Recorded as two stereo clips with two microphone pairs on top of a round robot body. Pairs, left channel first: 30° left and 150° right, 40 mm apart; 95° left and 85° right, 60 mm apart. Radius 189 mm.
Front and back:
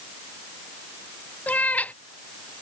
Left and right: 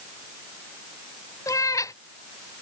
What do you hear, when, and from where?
1.5 s a cat meowing: 80° left